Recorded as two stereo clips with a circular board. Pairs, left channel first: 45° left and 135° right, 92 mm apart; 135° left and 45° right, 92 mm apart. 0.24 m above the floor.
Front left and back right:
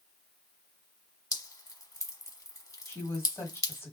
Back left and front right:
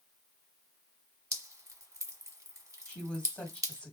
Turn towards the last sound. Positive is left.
turn(degrees=70)